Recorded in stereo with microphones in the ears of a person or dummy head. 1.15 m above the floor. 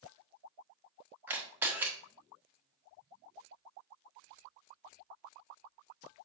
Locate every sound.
1.3 s a camera shutter: 10° right (ahead or behind), 1.2 m